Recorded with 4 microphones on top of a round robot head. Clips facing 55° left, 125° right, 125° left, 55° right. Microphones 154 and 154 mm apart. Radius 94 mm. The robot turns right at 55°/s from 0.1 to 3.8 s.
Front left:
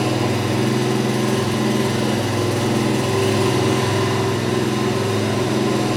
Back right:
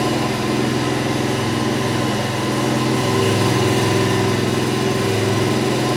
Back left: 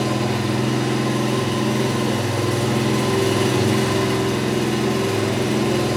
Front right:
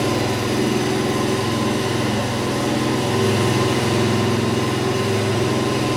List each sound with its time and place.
0.0 s an engine running: 35° right, 3.5 m; by 6.0 s 170° left, 3.5 m